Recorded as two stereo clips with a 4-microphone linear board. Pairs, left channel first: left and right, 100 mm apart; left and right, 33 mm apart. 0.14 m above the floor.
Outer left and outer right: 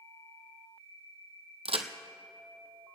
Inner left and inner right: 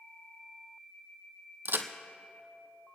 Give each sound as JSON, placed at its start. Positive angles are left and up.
{"t": 1.6, "sound": "a crack", "side_deg": -80, "distance_m": 0.8}